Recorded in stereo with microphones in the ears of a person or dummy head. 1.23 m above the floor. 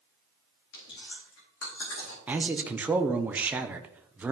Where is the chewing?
65° left (ahead or behind), 4 m.